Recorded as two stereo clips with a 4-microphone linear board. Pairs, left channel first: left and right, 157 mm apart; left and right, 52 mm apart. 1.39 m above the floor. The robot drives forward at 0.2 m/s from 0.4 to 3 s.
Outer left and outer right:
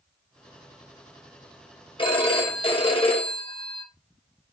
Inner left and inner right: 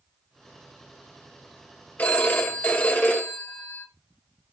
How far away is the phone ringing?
About 0.8 m.